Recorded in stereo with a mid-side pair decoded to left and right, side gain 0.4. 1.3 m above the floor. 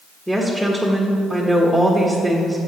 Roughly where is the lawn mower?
No lawn mower in this recording.